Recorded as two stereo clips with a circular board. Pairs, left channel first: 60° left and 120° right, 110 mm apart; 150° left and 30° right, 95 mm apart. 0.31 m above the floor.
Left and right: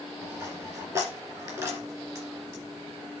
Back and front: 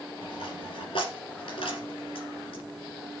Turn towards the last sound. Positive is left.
turn(degrees=180)